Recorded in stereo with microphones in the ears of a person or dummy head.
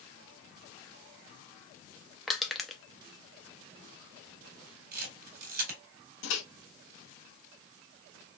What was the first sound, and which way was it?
Crushing, centre (ahead or behind).